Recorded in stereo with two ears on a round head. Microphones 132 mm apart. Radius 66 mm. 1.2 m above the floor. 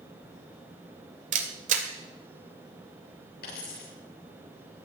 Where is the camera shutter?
50° right (ahead or behind), 2 m.